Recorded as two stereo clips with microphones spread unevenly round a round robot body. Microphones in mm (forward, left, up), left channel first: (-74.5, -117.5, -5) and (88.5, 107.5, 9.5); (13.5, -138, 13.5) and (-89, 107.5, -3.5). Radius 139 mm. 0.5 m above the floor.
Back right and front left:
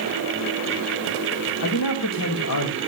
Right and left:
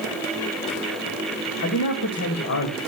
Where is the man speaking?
100° right, 2 m.